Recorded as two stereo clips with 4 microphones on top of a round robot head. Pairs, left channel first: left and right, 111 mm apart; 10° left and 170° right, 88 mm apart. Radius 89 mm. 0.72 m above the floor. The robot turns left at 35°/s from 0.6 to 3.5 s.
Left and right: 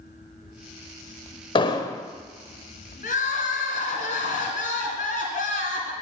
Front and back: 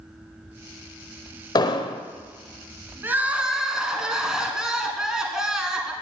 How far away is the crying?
About 1.5 m.